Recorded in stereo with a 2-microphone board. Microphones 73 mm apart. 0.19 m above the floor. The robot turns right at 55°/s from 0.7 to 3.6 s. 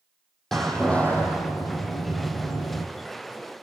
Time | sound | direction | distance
0.5 | a door slam | 5° left | 5.5 m